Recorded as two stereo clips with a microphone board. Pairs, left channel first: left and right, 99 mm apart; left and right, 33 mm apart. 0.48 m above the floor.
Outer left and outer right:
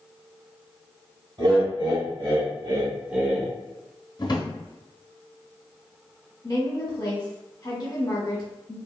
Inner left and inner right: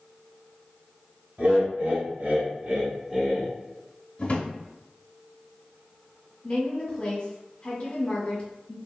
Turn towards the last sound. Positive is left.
turn(degrees=35)  # may be behind; listen again after turning